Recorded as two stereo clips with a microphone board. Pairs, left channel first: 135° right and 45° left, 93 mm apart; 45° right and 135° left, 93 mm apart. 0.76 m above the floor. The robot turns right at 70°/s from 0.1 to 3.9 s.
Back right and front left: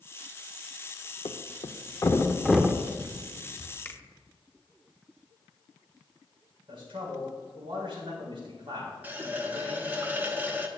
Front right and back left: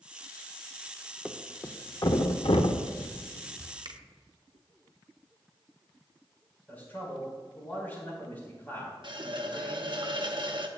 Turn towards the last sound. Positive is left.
turn(degrees=115)